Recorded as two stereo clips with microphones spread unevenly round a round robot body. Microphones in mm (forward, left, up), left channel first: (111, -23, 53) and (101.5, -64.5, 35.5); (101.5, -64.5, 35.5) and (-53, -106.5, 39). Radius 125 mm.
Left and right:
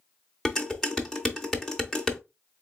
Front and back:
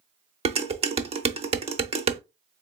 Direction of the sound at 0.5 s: 175° right.